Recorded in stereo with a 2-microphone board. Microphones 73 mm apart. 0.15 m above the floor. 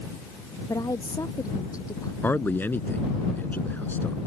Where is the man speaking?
25° left (ahead or behind).